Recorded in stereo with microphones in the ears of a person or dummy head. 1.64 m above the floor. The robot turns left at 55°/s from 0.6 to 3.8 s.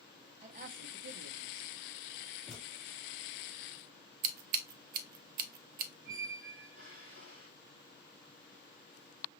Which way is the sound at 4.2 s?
50° right (ahead or behind).